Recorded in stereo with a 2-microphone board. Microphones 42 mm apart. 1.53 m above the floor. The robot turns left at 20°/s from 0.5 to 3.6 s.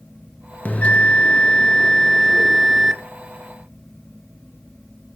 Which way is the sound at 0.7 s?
40° left.